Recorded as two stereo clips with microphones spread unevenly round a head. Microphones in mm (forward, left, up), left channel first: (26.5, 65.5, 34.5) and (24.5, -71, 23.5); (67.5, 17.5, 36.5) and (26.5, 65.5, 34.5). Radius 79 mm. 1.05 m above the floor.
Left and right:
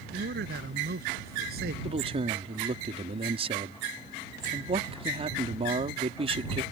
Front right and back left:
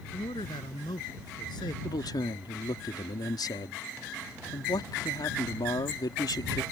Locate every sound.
0.1 s a man speaking: 85° right
1.8 s a man speaking: 45° right